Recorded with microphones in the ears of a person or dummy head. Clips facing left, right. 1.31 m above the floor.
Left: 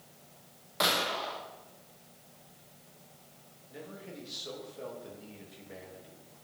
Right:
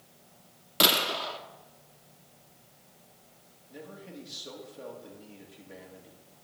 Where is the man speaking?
Centre (ahead or behind), 2 m.